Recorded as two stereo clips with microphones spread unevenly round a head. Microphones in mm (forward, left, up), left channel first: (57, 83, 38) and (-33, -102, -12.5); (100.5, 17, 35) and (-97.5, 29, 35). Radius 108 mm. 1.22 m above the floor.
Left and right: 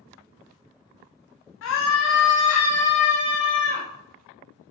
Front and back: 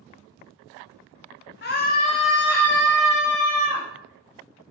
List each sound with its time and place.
1.6 s a scream: 35° left, 0.9 m; by 3.9 s 100° left, 1.9 m